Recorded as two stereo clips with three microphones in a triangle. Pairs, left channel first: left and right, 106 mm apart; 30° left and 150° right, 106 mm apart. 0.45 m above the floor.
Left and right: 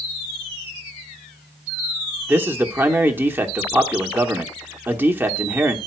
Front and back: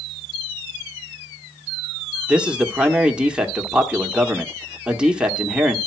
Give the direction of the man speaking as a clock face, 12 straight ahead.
3 o'clock.